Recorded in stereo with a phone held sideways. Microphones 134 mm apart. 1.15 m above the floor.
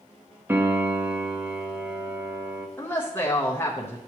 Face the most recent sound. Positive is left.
turn(degrees=15)  # may be behind; listen again after turning